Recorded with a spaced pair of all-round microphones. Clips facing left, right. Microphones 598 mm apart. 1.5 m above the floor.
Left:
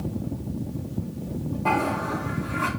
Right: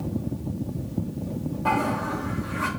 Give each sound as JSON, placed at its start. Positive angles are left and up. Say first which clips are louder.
{"t": 1.6, "sound": "a toilet flushing", "louder": "even", "side_deg": -40, "distance_m": 2.5}